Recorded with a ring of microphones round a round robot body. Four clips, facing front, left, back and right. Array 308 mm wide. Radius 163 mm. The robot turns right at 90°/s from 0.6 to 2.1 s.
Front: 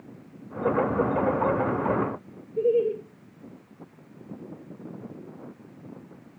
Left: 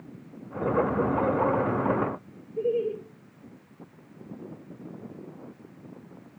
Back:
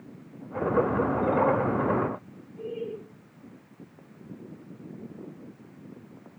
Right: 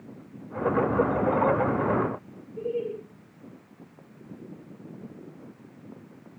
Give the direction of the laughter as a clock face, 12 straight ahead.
11 o'clock.